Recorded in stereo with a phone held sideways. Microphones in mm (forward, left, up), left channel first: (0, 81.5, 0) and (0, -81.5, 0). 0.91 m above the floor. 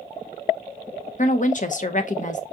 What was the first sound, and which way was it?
A woman speaking, 50° left (ahead or behind).